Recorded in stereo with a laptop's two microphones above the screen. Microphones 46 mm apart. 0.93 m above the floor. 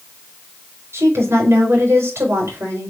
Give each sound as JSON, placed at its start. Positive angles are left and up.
{"t": 0.9, "sound": "a woman speaking", "side_deg": -80, "distance_m": 4.0}